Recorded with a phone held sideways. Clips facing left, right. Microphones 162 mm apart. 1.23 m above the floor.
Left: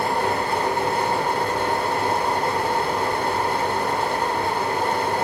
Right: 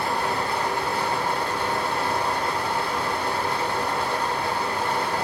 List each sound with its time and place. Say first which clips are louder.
0.0 s a fan: left 3 dB; 50° left (ahead or behind), 1.6 m